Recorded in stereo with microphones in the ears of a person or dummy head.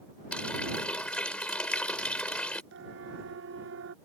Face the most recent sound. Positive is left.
turn(degrees=-75)  # may be behind; listen again after turning